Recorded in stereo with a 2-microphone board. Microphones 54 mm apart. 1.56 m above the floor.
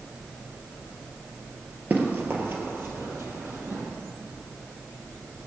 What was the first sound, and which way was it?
Running footsteps, 35° right (ahead or behind).